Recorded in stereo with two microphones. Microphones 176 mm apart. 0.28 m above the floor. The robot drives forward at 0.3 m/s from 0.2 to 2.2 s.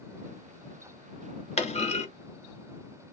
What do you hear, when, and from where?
1.6 s a clunk: 35° left (ahead or behind), 0.9 m; by 2.1 s 40° left (ahead or behind), 0.9 m